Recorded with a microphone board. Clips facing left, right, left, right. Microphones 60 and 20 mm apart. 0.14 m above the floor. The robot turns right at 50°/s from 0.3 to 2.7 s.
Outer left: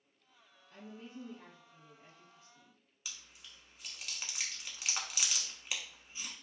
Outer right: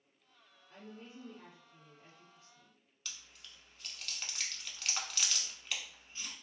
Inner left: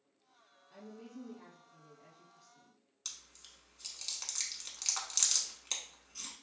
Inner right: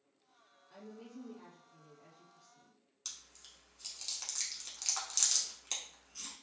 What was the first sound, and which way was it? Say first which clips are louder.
A woman speaking: outer left 2 dB, even; 25° right (ahead or behind).